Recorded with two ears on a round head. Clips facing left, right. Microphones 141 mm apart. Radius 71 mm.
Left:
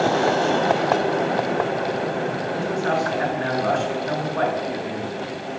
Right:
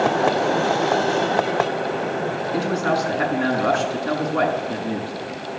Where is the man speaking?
75° right (ahead or behind), 6.5 m.